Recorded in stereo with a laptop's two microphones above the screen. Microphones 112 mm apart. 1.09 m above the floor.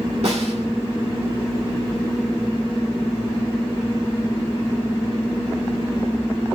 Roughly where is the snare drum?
Right.